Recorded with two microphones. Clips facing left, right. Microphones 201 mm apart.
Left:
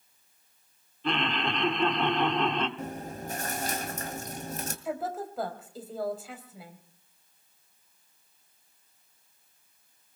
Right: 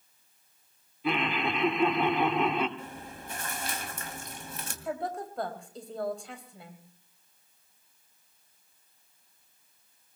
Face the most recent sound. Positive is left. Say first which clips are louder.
# even
turn(degrees=5)  # may be behind; listen again after turning